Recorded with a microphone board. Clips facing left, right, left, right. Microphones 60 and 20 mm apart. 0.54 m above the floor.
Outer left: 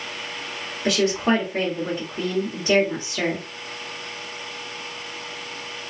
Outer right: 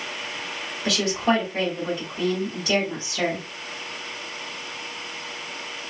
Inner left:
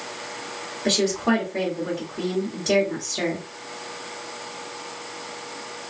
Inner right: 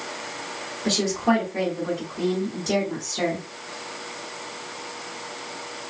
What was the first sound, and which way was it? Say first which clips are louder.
A woman speaking: outer left 2 dB, inner left 1 dB; 35° left (ahead or behind).